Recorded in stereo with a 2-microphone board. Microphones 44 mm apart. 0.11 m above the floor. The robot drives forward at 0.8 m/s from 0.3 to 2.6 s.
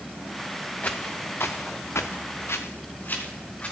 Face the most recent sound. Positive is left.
turn(degrees=30)  # may be behind; listen again after turning